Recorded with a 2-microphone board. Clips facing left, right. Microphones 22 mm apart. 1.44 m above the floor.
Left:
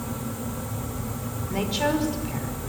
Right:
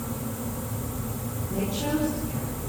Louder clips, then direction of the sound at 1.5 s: Left 3 dB; 80° left.